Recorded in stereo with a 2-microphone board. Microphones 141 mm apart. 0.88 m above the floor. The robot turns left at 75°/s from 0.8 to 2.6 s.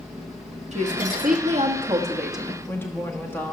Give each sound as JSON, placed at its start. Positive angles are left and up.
{"t": 0.7, "sound": "a woman speaking", "azimuth_deg": -60, "distance_m": 1.6}